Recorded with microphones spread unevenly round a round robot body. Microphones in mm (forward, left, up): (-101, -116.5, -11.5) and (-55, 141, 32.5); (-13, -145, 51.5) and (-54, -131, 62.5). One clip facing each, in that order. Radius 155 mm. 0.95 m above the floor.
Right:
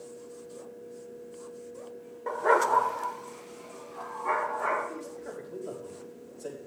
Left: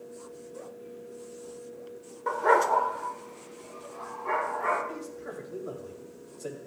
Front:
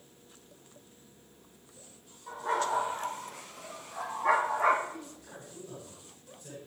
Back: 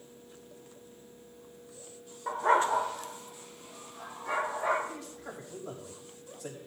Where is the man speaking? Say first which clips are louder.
Left 1 dB, back 2 dB; 165° left, 6 m.